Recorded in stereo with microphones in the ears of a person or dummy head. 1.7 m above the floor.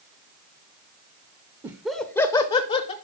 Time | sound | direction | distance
1.6 | laughter | 15° right (ahead or behind) | 0.8 m